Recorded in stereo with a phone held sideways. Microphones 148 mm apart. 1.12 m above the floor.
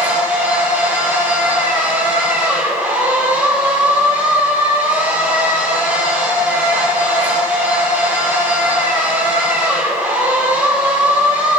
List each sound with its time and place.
0.0 s a machine running: 15° right (ahead or behind), 2.5 m